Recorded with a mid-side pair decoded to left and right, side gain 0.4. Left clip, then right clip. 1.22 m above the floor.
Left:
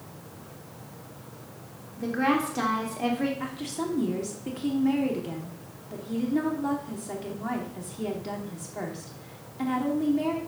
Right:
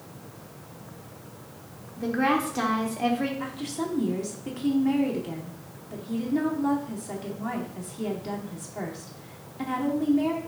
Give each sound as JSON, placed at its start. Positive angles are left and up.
{"t": 2.0, "sound": "a woman speaking", "azimuth_deg": -10, "distance_m": 2.5}
{"t": 3.4, "sound": "a woman speaking", "azimuth_deg": 5, "distance_m": 2.5}